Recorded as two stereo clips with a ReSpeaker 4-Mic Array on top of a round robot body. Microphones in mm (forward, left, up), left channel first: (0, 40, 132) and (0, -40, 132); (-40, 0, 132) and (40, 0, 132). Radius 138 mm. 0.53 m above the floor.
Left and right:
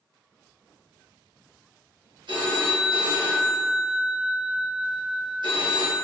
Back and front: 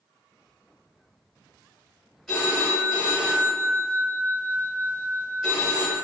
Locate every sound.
2.3 s a phone ringing: 95° right, 1.9 m